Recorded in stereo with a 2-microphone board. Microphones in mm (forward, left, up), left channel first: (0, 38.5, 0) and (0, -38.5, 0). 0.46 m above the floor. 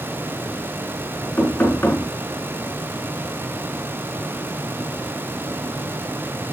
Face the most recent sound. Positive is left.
turn(degrees=25)  # may be behind; listen again after turning